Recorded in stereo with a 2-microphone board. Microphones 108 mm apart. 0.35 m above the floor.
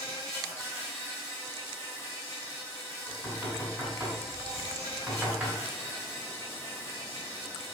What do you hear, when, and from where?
0.0 s an insect: 30° left (ahead or behind), 1.8 m
3.1 s knocking: 5° right (ahead or behind), 2 m